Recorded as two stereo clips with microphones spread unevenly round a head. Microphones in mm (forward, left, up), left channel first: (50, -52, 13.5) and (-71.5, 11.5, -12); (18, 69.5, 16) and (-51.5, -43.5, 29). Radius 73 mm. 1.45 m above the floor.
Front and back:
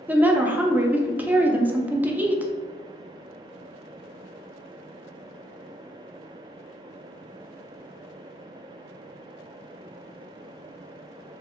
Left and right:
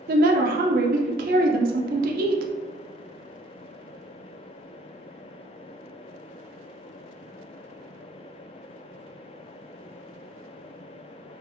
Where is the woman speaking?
125° right, 0.5 m.